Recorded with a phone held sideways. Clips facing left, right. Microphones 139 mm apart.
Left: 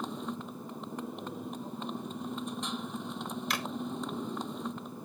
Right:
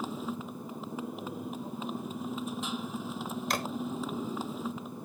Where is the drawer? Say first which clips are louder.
Right 4 dB; 45° right (ahead or behind).